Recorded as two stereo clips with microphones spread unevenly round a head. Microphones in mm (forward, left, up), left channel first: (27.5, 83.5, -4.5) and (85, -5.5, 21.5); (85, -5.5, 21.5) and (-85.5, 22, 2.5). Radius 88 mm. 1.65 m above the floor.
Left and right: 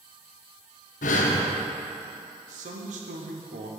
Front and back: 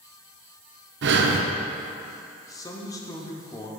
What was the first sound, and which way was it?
Breathing, 145° left.